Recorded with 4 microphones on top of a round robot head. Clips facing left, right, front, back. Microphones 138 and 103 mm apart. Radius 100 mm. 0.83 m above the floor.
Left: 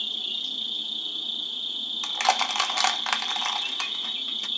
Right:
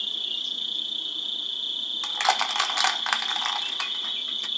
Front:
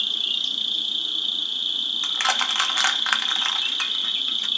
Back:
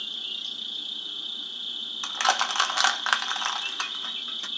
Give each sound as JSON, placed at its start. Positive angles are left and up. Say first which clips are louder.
{"t": 0.0, "sound": "an insect", "louder": "left 1 dB, front 7 dB", "azimuth_deg": 10, "distance_m": 0.8}
{"t": 2.0, "sound": "crushing", "louder": "left 1 dB, back 1 dB", "azimuth_deg": 135, "distance_m": 0.7}